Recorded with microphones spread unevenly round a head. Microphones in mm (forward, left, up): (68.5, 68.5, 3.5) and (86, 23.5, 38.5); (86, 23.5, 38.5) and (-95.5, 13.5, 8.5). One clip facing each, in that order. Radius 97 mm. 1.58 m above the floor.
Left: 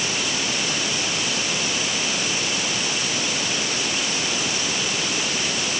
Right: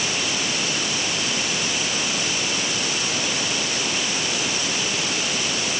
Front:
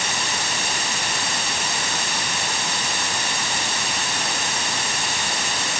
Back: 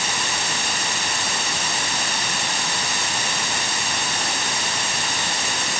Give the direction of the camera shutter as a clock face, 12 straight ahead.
I don't hear a camera shutter.